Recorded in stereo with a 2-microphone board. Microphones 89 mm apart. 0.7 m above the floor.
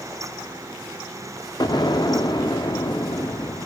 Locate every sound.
1.6 s an explosion: 50° left (ahead or behind), 0.6 m